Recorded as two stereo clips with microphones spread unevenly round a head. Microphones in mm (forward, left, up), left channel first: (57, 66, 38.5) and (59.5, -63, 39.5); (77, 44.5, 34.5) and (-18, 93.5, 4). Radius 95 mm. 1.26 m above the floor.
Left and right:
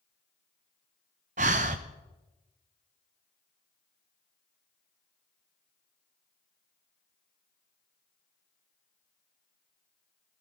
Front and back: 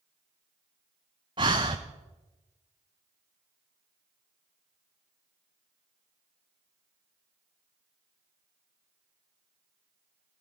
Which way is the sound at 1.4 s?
140° right.